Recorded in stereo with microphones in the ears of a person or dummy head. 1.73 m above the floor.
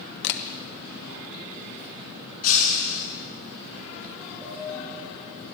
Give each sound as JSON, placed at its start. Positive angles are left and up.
{"t": 0.2, "sound": "a camera shutter", "side_deg": 60, "distance_m": 1.5}
{"t": 2.4, "sound": "breaking glass", "side_deg": 45, "distance_m": 7.5}
{"t": 4.4, "sound": "a piano", "side_deg": -10, "distance_m": 7.0}